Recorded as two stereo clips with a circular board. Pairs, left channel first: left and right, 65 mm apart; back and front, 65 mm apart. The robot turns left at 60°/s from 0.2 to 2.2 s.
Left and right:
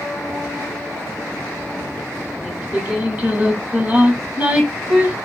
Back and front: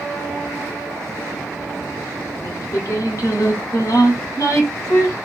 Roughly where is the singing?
Behind right.